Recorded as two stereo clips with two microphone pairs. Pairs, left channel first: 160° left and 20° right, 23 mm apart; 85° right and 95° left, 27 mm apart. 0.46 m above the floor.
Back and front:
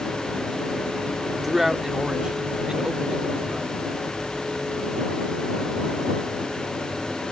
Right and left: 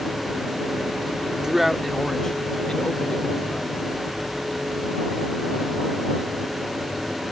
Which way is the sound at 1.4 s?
70° left.